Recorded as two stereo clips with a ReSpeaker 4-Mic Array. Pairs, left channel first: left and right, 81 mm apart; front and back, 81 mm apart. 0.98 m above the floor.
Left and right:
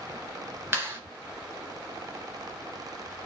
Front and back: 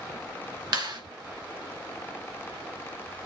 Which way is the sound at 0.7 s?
150° right.